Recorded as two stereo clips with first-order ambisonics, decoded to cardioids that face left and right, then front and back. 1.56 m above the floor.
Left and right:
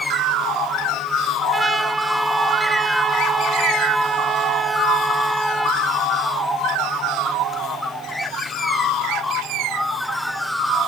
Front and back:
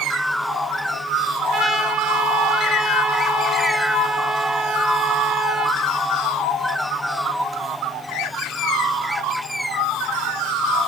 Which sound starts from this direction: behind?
A trumpet, at 1.5 s.